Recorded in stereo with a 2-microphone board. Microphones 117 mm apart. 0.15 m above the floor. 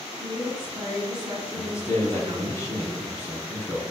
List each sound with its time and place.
0.2 s a woman speaking: 45° right (ahead or behind), 1.6 m
1.6 s a man speaking: 25° left (ahead or behind), 1.0 m